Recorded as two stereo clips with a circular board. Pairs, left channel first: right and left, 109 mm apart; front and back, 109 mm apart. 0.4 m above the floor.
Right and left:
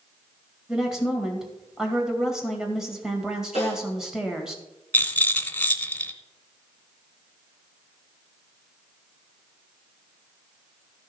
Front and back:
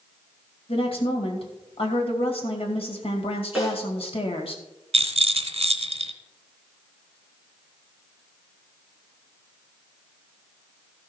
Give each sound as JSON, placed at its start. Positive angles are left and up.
{"t": 0.7, "sound": "a woman speaking", "azimuth_deg": 5, "distance_m": 1.9}
{"t": 3.5, "sound": "a snare drum", "azimuth_deg": 95, "distance_m": 4.0}
{"t": 4.9, "sound": "a rattle", "azimuth_deg": -165, "distance_m": 0.8}